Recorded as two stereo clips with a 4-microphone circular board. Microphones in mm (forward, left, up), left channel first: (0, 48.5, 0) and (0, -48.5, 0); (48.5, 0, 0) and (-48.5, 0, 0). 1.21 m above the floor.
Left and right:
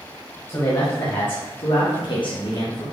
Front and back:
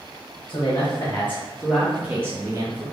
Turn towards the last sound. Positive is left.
turn(degrees=135)